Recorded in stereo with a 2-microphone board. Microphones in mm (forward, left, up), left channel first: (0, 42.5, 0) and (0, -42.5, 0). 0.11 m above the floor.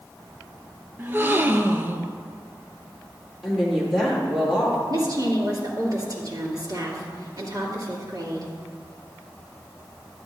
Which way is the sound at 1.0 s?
30° right (ahead or behind).